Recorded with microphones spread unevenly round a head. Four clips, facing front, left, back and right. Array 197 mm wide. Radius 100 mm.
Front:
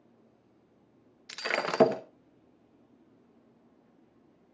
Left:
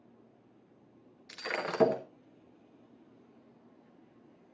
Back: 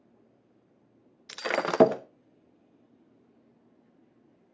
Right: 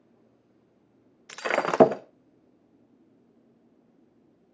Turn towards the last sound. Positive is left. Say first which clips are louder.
# right 10 dB, back 3 dB
turn(degrees=-125)